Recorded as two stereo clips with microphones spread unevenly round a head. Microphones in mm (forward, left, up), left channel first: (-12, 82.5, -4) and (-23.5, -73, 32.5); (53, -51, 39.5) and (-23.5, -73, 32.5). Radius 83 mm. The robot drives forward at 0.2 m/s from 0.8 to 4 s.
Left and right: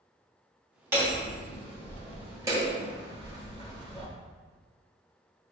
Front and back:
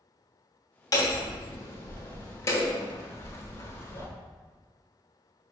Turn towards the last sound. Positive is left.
turn(degrees=-35)